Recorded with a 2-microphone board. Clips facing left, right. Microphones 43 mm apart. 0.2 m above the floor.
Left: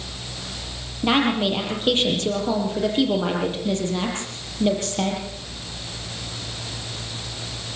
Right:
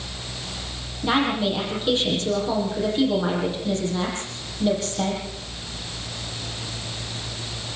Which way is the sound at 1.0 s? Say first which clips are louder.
Left 2 dB; 45° left (ahead or behind).